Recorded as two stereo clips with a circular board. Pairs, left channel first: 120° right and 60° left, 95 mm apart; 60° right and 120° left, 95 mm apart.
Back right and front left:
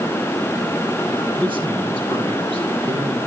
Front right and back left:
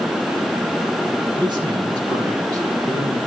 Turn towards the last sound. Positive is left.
turn(degrees=75)